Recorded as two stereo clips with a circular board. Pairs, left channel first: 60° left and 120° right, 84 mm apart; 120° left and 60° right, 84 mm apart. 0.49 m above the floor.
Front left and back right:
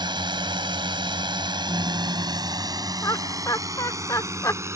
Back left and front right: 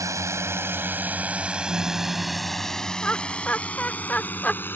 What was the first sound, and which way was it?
A drone, 105° right.